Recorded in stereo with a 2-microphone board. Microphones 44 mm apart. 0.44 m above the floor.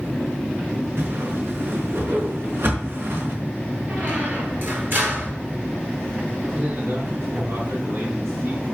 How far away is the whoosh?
About 4.5 m.